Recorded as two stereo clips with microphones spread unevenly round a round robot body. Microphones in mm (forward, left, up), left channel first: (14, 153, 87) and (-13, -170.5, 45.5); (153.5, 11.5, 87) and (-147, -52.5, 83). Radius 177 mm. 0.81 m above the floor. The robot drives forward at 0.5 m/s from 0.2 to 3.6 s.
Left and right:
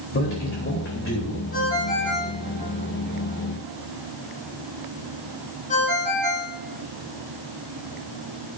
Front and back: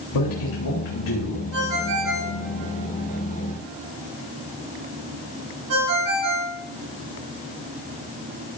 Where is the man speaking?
30° left, 3.5 m; by 1.5 s 35° left, 3 m.